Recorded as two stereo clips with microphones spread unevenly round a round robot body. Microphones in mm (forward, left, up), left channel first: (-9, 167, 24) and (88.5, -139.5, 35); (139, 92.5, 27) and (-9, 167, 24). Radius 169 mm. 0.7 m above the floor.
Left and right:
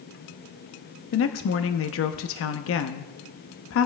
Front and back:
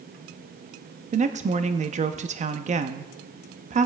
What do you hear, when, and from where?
1.1 s a woman speaking: 135° left, 0.6 m